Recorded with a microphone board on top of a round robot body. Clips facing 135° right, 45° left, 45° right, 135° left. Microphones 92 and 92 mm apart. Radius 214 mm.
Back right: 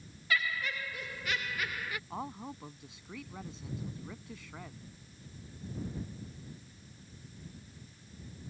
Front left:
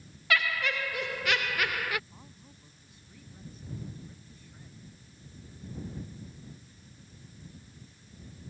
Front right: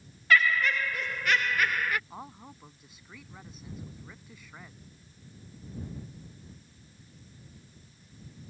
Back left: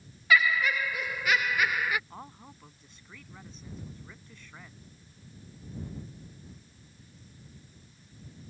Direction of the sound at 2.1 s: 130° right.